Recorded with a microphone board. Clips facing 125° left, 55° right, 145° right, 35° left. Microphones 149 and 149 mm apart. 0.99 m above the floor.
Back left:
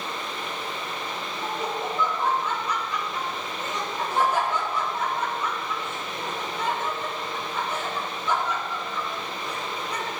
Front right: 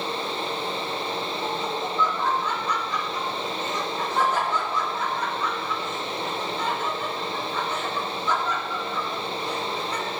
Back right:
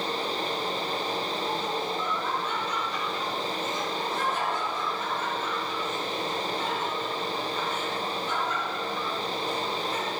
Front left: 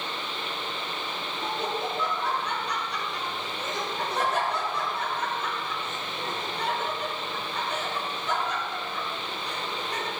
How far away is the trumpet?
I don't hear a trumpet.